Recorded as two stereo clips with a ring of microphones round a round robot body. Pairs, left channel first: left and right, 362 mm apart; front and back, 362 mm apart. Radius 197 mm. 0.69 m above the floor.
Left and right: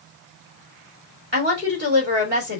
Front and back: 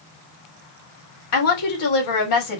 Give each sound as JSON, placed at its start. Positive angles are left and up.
{"t": 1.3, "sound": "a woman speaking", "azimuth_deg": -25, "distance_m": 2.5}